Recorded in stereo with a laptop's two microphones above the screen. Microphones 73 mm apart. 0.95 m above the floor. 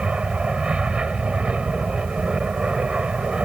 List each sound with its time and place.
0.0 s an aircraft: 15° right (ahead or behind)